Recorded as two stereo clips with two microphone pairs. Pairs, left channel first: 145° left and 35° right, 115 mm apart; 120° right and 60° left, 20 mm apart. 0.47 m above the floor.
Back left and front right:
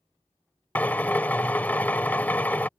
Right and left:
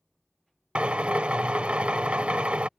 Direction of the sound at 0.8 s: 70° left.